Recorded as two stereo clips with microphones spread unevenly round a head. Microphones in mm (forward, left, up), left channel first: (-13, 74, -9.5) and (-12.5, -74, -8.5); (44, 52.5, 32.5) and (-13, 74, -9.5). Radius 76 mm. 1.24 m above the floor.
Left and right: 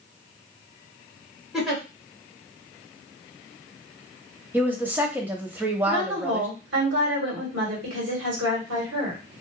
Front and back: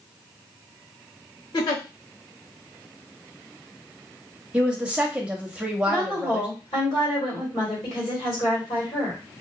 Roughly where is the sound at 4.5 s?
Behind.